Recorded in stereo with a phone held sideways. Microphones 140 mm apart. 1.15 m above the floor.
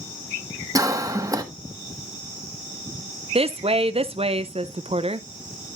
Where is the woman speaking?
45° right (ahead or behind), 0.6 m.